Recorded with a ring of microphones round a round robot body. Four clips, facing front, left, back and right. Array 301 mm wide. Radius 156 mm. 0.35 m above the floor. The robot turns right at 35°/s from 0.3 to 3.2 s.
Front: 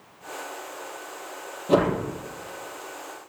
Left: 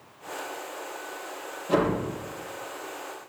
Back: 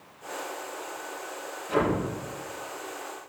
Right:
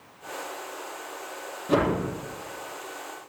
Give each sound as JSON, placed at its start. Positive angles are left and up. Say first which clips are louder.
{"t": 1.7, "sound": "a whoosh", "louder": "right 1 dB, front 5 dB", "azimuth_deg": -25, "distance_m": 6.5}